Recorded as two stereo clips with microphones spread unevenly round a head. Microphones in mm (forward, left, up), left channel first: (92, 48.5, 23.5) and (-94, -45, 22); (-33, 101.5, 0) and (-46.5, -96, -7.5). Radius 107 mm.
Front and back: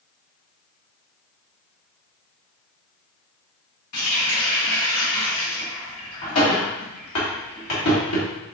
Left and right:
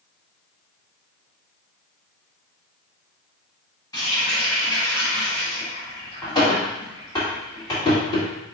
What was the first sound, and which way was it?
A running tap, 15° left.